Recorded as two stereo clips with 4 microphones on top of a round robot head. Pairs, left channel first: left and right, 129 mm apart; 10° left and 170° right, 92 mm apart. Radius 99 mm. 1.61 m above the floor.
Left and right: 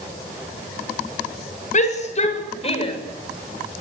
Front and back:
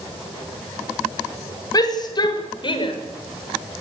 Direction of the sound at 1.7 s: 55° left.